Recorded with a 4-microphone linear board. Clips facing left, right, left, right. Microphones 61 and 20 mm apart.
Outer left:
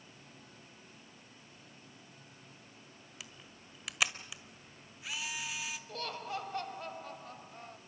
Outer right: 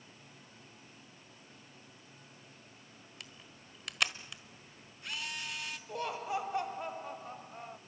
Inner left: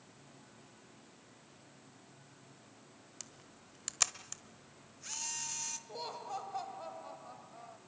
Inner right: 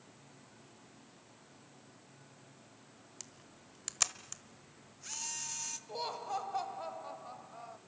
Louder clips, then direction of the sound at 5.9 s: Outer right 5 dB, inner right 8 dB; 15° right (ahead or behind).